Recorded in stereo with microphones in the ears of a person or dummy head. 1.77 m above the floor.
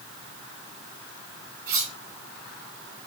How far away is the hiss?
No hiss in this recording.